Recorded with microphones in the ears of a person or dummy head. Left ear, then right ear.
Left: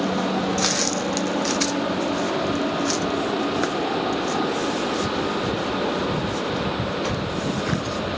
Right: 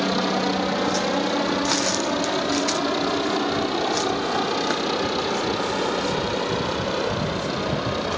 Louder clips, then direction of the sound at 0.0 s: Right 1 dB; 65° right (ahead or behind).